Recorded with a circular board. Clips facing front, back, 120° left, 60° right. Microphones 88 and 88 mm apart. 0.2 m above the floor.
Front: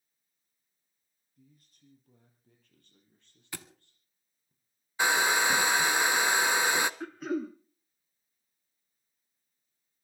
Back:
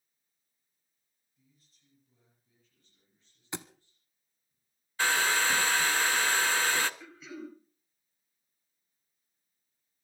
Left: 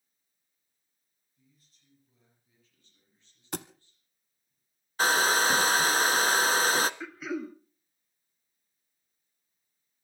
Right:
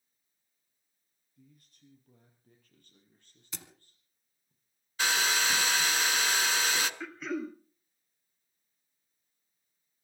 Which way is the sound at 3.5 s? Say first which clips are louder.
Back 4 dB, left 13 dB; 115° left.